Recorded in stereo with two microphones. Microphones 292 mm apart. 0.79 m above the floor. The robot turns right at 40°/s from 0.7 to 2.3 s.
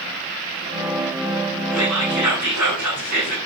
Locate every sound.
1.7 s whispering: 55° right (ahead or behind), 5 m; by 3.4 s 80° right, 5 m